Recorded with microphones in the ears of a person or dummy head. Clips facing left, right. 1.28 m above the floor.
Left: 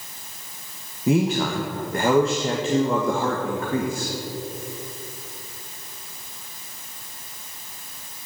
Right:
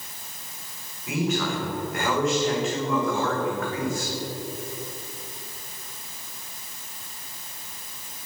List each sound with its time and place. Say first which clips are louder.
1.1 s a man speaking: left 6 dB; 30° left (ahead or behind), 1.9 m